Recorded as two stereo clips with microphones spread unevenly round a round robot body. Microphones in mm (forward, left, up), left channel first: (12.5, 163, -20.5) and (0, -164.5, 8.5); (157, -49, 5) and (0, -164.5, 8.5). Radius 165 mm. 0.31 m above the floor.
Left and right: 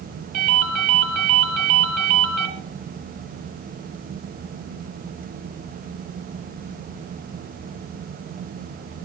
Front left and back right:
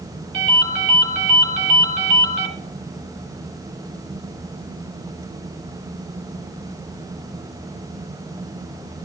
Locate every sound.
0.3 s a ringtone: 140° right, 3 m